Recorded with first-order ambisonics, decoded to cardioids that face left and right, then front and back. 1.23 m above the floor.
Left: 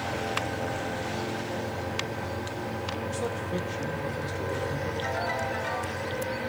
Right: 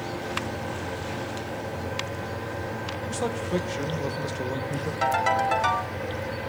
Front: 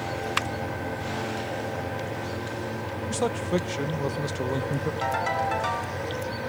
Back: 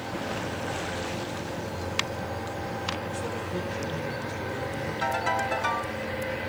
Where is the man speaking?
20° right, 0.8 m.